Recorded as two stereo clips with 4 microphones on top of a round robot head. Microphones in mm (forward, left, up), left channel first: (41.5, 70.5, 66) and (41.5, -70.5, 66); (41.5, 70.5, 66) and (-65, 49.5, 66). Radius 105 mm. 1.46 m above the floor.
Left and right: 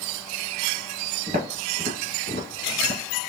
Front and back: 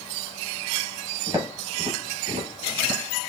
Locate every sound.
1.3 s footsteps: 120° right, 1.6 m; by 3.0 s 130° right, 2.5 m